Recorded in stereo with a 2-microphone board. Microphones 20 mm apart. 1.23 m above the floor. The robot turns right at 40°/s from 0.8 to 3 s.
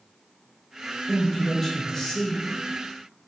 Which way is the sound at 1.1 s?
10° right.